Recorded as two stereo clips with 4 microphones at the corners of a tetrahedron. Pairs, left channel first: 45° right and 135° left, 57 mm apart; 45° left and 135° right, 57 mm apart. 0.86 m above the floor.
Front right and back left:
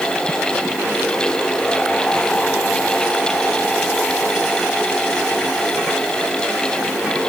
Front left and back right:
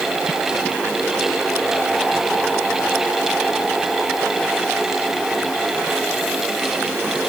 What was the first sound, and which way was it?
Only background noise.